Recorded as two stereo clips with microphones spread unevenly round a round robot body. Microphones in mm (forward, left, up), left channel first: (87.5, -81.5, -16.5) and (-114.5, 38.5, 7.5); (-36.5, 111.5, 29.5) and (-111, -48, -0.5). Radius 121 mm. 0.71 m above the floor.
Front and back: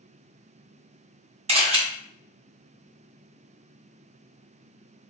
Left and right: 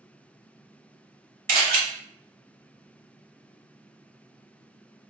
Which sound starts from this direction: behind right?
A camera shutter, at 1.5 s.